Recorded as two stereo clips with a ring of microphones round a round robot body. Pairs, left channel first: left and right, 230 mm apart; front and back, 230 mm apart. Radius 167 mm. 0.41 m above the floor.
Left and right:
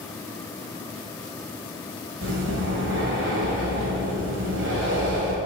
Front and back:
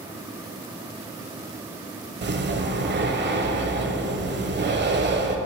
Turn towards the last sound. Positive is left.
turn(degrees=-135)